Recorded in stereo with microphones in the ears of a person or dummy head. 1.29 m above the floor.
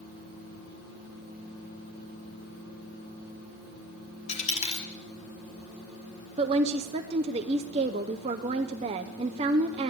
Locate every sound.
4.3 s a dropped coin: 30° left (ahead or behind), 1.6 m
6.4 s a woman speaking: 25° right (ahead or behind), 0.5 m